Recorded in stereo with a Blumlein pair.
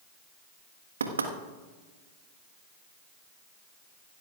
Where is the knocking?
70° right, 1.4 m.